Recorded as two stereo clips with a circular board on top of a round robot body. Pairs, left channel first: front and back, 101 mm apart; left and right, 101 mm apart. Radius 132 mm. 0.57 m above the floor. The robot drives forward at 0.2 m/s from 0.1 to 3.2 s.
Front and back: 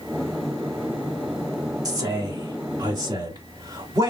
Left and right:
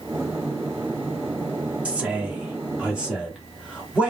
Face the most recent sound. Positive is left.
turn(degrees=-165)